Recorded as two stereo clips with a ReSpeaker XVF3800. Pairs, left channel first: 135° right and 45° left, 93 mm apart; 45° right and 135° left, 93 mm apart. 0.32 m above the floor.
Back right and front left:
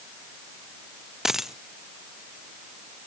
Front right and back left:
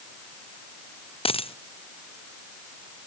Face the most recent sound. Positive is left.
turn(degrees=-40)